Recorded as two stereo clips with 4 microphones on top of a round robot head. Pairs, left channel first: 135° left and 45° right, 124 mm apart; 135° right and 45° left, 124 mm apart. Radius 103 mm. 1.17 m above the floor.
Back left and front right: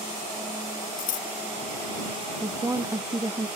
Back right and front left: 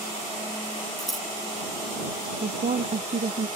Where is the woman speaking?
20° left.